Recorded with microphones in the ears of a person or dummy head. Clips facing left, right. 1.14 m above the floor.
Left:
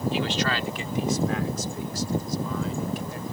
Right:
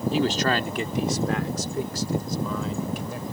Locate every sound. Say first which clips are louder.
0.1 s a man speaking: right 4 dB; 30° right (ahead or behind); by 3.3 s 70° right (ahead or behind)